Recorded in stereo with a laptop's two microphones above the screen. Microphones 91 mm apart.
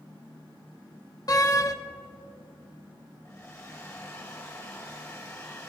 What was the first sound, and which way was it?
A door slam, 40° left (ahead or behind).